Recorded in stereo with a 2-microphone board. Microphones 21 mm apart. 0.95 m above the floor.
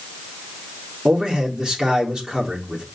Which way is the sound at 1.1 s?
35° right (ahead or behind).